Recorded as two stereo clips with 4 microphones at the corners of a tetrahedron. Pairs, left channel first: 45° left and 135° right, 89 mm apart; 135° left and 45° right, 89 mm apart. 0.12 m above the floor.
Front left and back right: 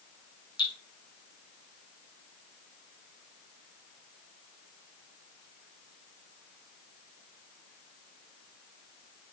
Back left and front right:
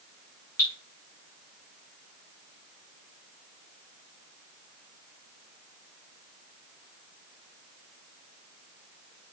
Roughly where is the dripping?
Left.